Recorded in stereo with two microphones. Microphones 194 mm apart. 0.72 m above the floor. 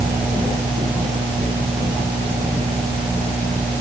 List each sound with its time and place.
Only background noise.